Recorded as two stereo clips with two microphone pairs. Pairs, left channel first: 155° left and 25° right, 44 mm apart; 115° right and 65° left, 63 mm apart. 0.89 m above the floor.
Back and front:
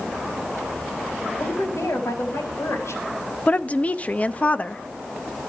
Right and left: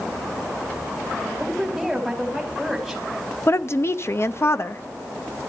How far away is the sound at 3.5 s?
About 0.9 m.